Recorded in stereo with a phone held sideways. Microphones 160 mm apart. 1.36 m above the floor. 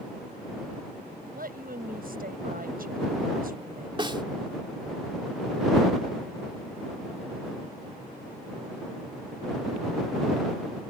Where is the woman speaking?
65° right (ahead or behind).